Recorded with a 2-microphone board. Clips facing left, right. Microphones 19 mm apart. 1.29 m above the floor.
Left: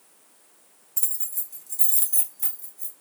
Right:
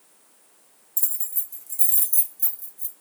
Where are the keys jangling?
20° left (ahead or behind), 0.7 m.